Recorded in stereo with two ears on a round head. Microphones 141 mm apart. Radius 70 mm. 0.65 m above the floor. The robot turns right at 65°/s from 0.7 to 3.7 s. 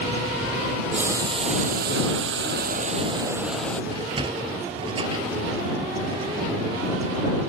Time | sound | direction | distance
0.9 | boiling | 175° right | ?
3.9 | a sliding door | 30° right (ahead or behind) | ?